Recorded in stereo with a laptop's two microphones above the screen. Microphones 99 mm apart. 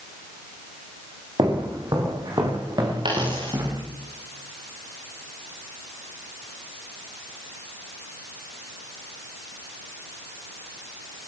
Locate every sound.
1.4 s footsteps: 50° right (ahead or behind), 9 m; by 3.8 s 45° right (ahead or behind), 11 m
3.0 s a dropped coin: 55° right (ahead or behind), 8 m